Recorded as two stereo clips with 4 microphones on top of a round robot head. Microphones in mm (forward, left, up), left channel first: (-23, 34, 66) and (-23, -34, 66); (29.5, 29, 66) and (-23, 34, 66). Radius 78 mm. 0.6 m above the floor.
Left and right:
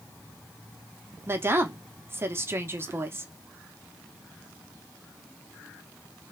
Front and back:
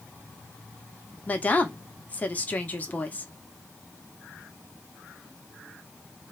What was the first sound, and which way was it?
A woman speaking, 55° right.